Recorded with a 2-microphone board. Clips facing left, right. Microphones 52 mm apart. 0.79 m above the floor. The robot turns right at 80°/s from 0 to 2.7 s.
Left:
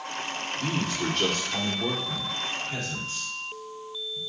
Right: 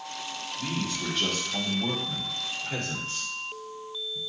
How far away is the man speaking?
About 2.5 m.